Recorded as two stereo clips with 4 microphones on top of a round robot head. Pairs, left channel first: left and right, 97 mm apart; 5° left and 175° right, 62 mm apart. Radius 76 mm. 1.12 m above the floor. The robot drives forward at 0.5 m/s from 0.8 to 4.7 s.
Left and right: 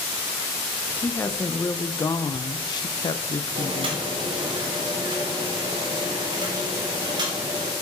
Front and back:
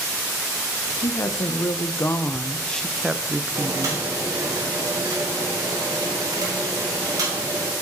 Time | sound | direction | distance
1.0 | a woman speaking | 25° left | 1.1 m
3.5 | boiling | 125° right | 1.4 m